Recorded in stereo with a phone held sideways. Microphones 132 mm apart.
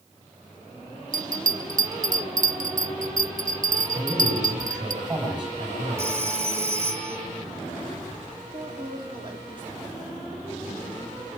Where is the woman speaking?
35° right (ahead or behind), 3.5 m.